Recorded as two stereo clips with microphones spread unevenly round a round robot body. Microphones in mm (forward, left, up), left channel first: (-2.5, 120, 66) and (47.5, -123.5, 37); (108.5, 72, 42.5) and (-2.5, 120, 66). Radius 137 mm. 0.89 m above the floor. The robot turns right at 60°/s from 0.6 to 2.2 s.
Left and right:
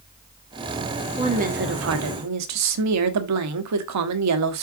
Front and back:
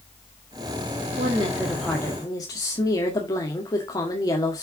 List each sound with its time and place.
1.2 s a woman speaking: 150° right, 1.4 m; by 4.6 s 90° right, 1.4 m